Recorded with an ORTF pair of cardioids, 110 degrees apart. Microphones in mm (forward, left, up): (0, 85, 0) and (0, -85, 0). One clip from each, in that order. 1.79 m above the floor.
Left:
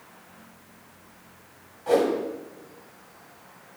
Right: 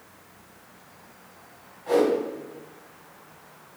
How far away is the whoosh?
About 1.1 m.